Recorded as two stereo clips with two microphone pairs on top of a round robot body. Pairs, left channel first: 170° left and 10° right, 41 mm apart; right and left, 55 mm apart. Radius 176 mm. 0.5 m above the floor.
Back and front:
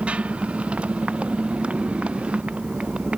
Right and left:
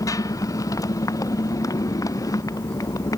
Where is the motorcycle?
75° right.